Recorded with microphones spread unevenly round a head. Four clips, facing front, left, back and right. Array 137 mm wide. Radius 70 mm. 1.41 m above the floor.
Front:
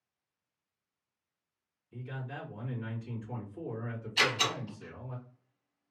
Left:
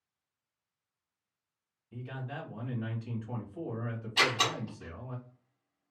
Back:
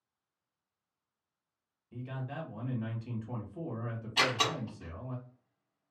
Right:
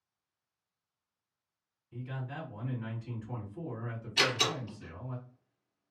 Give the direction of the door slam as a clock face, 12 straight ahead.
7 o'clock.